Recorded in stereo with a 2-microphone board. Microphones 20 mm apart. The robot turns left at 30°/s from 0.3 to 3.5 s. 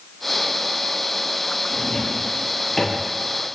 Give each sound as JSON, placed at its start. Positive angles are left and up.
{"t": 1.7, "sound": "a drawer", "side_deg": 45, "distance_m": 6.0}